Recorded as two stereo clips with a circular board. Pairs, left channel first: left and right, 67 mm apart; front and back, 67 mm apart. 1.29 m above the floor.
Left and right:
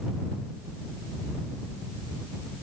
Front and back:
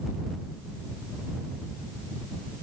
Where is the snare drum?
No snare drum in this recording.